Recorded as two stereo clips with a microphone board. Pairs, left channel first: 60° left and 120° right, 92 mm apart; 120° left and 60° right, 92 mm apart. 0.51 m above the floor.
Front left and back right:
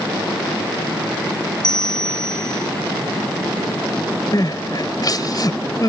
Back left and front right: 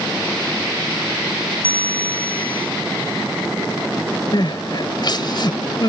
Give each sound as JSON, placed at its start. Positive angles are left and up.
{"t": 1.6, "sound": "a bell", "azimuth_deg": 100}
{"t": 4.3, "sound": "crying", "azimuth_deg": 95}